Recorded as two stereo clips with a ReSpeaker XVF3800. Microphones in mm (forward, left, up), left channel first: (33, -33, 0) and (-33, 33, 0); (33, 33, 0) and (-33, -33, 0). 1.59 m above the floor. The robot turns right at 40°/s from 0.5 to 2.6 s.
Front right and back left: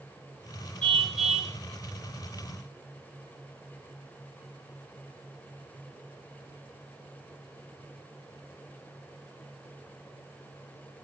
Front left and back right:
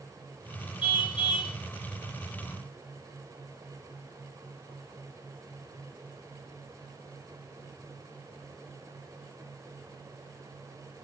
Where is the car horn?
30° left, 3.5 m; by 1.5 s 60° left, 3.5 m.